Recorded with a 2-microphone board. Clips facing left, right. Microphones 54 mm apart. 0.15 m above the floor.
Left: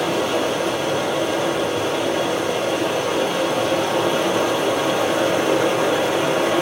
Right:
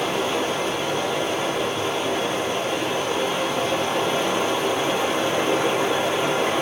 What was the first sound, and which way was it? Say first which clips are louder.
Running water: left 3 dB; 65° left (ahead or behind).